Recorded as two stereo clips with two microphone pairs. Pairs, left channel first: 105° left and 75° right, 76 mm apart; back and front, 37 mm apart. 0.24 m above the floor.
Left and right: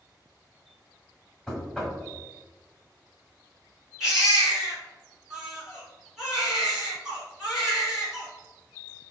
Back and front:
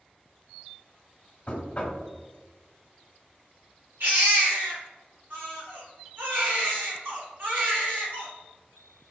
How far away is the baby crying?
About 1.8 m.